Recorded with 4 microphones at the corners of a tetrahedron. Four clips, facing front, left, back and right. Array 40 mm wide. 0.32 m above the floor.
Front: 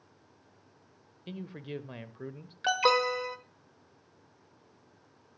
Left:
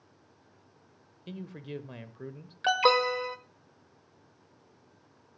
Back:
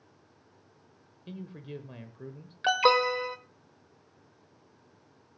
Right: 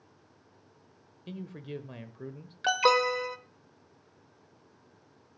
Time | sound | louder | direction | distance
1.3 | a man speaking | even, front 2 dB | 10° left | 0.8 m
2.6 | an alarm | even, back 2 dB | 150° left | 0.9 m